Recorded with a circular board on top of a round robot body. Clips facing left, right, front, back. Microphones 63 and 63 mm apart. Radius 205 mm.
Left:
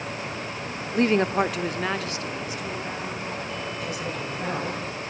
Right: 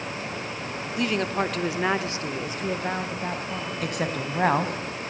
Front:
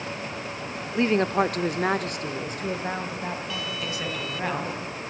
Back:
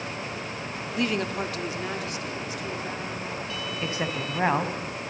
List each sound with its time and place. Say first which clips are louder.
0.9 s a woman speaking: left 5 dB, front 6 dB; 55° left, 1.4 m; by 3.7 s 55° right, 3.5 m
3.8 s a woman speaking: right 2 dB, back 1 dB; 120° right, 3.5 m